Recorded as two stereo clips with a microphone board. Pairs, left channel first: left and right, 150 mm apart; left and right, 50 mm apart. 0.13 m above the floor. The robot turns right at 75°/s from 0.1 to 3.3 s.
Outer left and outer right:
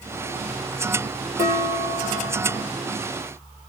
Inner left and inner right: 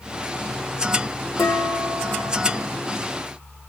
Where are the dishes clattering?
75° left, 3 m; by 2.7 s 175° left, 3 m.